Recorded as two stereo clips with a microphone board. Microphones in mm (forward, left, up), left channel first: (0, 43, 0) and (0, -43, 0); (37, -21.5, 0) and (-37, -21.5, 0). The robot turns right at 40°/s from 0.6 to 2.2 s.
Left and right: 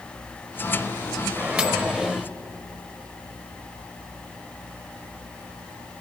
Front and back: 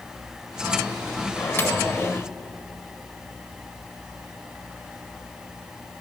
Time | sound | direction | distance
1.4 | a microwave | 35° right | 0.8 m